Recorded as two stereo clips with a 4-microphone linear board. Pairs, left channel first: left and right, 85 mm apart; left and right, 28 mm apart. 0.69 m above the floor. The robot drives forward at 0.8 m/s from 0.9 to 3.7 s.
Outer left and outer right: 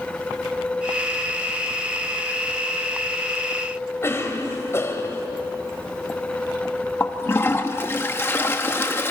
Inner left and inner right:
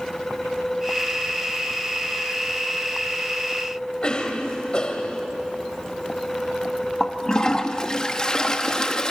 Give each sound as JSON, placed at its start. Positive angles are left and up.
{"t": 4.0, "sound": "a cough", "side_deg": 30, "distance_m": 3.0}
{"t": 7.0, "sound": "a toilet flushing", "side_deg": 25, "distance_m": 1.1}